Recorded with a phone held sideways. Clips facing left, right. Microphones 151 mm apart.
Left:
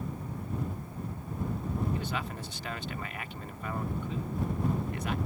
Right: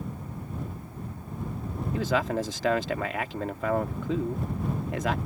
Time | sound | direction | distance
1.9 | a man speaking | 80° right | ?